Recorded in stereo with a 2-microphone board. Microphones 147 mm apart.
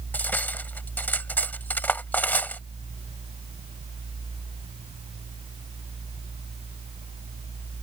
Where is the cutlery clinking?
15° left (ahead or behind).